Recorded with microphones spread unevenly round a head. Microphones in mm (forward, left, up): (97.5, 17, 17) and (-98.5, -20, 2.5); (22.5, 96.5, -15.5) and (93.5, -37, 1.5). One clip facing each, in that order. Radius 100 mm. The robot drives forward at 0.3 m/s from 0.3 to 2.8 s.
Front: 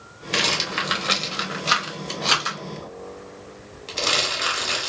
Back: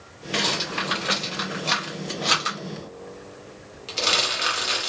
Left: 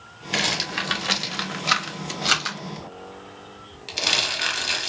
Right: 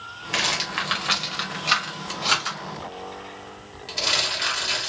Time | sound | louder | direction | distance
0.3 | a rattle | even, left 1 dB | 60° left | 1.1 m